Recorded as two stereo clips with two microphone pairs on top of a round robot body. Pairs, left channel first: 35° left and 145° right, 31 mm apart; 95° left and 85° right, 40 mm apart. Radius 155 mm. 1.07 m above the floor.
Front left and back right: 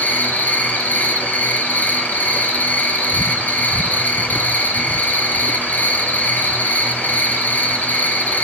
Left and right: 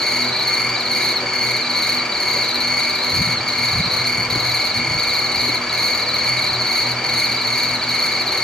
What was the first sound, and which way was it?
An insect, 20° left.